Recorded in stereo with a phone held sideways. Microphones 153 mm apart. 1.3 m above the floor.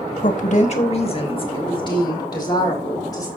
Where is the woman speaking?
60° left (ahead or behind), 1.3 m; by 3.3 s 25° left (ahead or behind), 4 m.